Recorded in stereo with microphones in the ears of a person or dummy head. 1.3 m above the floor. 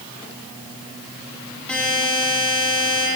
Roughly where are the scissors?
No scissors in this recording.